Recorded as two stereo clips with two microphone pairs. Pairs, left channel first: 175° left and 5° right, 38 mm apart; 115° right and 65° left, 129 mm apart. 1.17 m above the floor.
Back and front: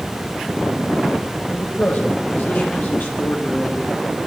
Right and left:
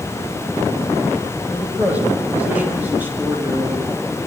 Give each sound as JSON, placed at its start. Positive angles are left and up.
{"t": 1.5, "sound": "a man speaking", "azimuth_deg": 145, "distance_m": 7.5}